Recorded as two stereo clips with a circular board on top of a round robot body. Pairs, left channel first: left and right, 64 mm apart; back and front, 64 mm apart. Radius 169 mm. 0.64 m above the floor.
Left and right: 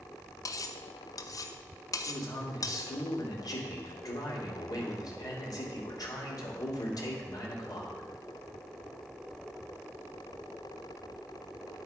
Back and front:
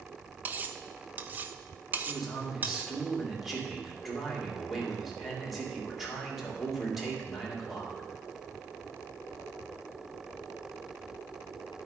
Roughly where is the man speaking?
Left.